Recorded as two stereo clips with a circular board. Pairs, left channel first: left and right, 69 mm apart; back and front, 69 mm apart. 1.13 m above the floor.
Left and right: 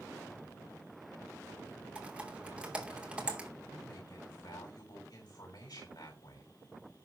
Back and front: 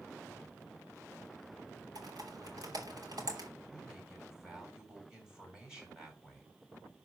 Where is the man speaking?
85° left, 6 m.